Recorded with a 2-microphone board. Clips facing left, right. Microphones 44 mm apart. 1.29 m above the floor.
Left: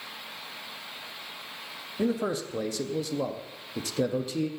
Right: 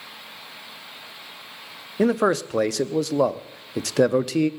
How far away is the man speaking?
About 0.5 m.